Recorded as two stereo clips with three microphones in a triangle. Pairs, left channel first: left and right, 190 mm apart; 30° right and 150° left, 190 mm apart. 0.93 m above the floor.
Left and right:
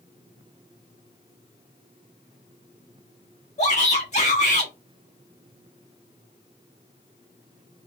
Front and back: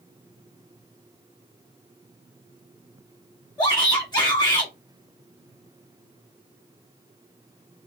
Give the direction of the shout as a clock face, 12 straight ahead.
11 o'clock.